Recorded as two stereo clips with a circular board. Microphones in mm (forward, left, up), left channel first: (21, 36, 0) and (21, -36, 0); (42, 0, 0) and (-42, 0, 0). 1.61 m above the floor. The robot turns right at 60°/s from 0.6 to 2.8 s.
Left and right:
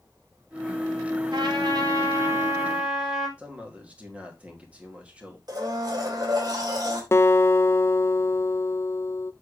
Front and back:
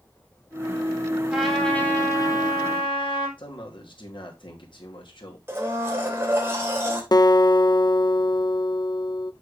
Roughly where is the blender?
Behind right.